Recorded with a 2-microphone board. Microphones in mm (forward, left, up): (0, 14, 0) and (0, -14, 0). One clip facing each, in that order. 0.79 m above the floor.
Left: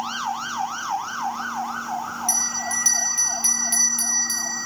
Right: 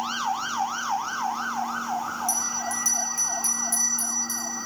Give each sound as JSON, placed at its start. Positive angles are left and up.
{"t": 2.3, "sound": "a bell", "side_deg": 50, "distance_m": 3.0}